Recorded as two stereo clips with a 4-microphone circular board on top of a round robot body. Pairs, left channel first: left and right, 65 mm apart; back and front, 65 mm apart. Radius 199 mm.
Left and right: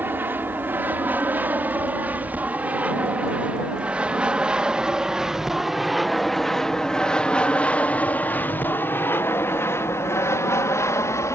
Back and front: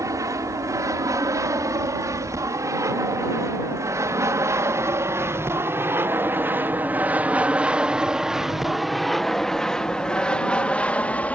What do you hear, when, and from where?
0.0 s an aircraft: 30° right; by 11.4 s 120° left